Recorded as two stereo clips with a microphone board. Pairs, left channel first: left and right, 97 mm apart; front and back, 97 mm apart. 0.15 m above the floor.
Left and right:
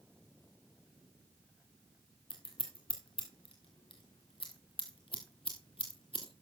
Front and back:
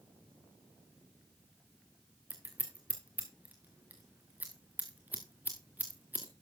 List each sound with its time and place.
2.3 s scissors: 105° left, 2.5 m